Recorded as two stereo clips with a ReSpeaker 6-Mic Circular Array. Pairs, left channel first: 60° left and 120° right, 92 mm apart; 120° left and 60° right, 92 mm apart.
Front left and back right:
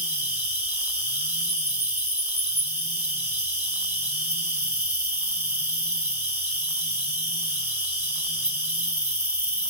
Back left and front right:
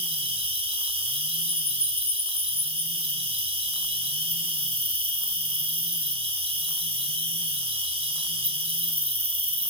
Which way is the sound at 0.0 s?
55° right.